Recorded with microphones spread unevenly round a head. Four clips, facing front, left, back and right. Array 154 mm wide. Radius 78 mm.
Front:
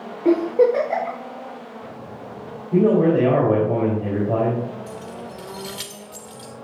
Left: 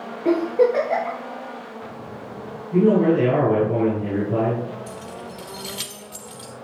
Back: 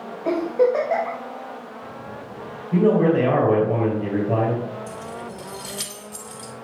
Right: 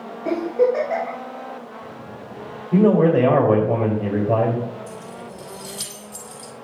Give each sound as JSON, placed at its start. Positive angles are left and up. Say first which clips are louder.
{"t": 0.2, "sound": "a giggle", "louder": "left 1 dB, front 3 dB", "azimuth_deg": 20, "distance_m": 4.0}
{"t": 2.7, "sound": "a man speaking", "louder": "right 1 dB, front 1 dB", "azimuth_deg": -65, "distance_m": 3.5}
{"t": 4.9, "sound": "keys jangling", "louder": "even, back 1 dB", "azimuth_deg": 80, "distance_m": 2.5}